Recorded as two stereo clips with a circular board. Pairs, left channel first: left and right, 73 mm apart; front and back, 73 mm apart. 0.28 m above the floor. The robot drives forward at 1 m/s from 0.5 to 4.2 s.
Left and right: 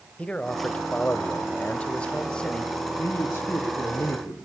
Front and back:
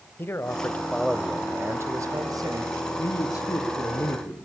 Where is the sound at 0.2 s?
30° left, 1.1 m; by 2.7 s 170° left, 1.9 m.